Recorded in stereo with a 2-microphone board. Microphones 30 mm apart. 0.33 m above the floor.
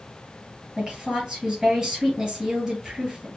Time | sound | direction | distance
0.8 | a woman speaking | 20° right (ahead or behind) | 1.7 m